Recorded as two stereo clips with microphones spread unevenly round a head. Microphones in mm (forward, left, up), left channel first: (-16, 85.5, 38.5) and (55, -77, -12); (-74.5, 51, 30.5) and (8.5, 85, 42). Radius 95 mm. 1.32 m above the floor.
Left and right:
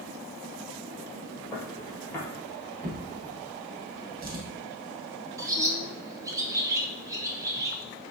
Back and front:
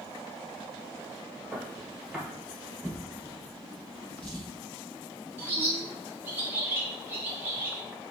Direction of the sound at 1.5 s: 85° left.